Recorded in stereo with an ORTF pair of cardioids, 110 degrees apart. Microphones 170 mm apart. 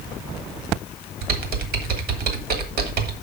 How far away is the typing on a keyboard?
About 1.7 m.